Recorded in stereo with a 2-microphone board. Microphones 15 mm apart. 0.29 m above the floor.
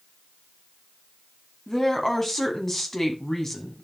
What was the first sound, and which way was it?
A woman speaking, 30° left (ahead or behind).